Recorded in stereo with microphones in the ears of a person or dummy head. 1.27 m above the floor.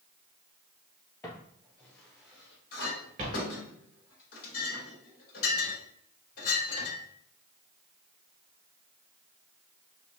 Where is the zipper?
I don't hear a zipper.